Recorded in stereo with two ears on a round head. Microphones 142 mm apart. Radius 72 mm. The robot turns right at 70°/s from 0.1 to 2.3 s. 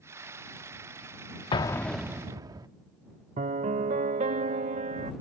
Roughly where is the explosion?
Behind left.